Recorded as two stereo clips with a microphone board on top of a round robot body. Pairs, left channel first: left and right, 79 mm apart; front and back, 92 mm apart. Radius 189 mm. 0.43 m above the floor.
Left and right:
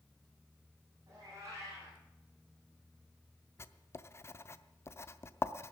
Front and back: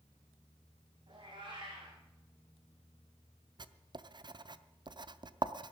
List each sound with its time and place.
1.1 s a cat meowing: 145° right, 8.5 m
3.6 s writing: 145° left, 0.7 m